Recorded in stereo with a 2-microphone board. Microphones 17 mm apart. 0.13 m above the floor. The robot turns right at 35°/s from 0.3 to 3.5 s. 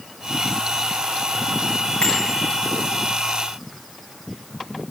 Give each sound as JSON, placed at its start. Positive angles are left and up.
{"t": 2.0, "sound": "a bicycle bell", "side_deg": 70, "distance_m": 7.0}